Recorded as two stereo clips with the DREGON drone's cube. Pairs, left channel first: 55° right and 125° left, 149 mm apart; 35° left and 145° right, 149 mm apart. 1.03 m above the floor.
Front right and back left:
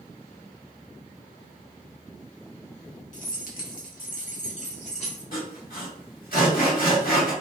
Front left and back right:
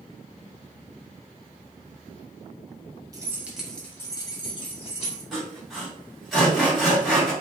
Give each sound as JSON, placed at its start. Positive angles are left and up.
{"t": 3.1, "sound": "keys jangling", "azimuth_deg": -80, "distance_m": 0.7}
{"t": 5.3, "sound": "sawing", "azimuth_deg": -55, "distance_m": 1.4}